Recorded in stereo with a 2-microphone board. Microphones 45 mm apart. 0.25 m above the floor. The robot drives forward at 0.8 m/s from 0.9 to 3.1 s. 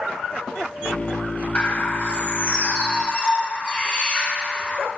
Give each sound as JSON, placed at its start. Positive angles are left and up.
{"t": 1.6, "sound": "a bird", "side_deg": 30, "distance_m": 1.2}